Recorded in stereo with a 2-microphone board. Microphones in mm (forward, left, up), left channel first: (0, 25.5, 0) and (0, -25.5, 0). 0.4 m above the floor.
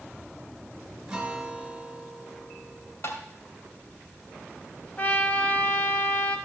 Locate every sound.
1.1 s a guitar: 10° right (ahead or behind), 2.5 m
3.0 s tapping: 60° left (ahead or behind), 2.5 m
5.0 s a trumpet: 30° left (ahead or behind), 1.3 m